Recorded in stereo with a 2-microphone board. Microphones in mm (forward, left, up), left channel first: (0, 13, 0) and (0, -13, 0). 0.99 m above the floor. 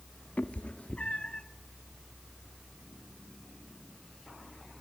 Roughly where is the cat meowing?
Left.